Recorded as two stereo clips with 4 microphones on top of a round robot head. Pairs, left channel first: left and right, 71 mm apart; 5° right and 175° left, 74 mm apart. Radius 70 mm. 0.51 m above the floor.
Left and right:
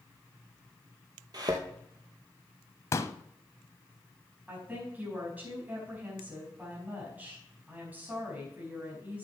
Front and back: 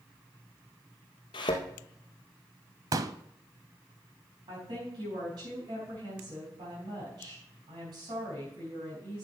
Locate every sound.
1.3 s a thud: 40° right, 1.7 m
2.9 s a pop: 140° left, 0.6 m
4.5 s a woman speaking: 160° right, 4.5 m